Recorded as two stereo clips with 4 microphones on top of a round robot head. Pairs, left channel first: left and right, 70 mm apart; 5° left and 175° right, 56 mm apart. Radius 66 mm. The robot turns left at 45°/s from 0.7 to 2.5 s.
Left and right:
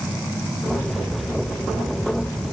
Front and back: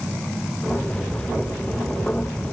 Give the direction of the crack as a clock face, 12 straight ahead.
I don't hear a crack.